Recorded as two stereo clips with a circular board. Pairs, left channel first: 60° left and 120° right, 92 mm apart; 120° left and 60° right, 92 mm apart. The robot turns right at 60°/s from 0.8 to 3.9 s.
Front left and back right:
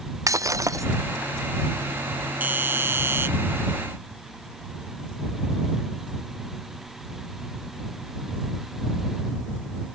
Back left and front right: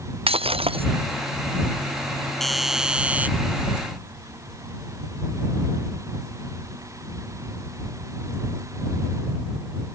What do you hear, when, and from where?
0.3 s breaking glass: 65° right; by 0.9 s 60° right
2.4 s a doorbell: 155° right; by 3.3 s 105° right